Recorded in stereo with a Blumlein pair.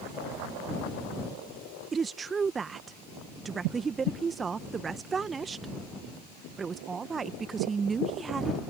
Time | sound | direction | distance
1.9 | a woman speaking | 15° right | ?